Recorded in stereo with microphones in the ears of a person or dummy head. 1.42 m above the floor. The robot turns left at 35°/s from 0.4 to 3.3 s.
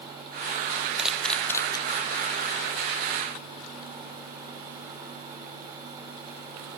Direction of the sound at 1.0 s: 5° right (ahead or behind).